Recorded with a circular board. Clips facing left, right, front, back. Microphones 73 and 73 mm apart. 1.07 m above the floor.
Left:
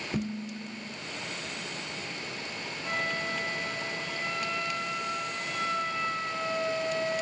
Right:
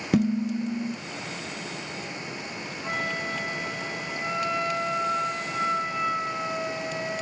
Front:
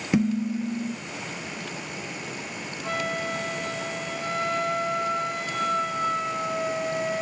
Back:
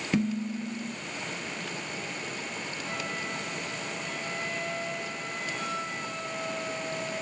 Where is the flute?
30° right, 2 m.